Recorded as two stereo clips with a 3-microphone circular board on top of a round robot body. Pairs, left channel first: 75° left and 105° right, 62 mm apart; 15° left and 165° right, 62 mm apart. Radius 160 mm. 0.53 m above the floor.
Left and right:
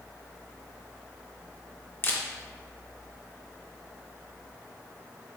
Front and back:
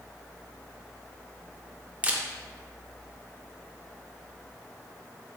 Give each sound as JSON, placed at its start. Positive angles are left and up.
{"t": 2.0, "sound": "a camera shutter", "azimuth_deg": 130, "distance_m": 1.0}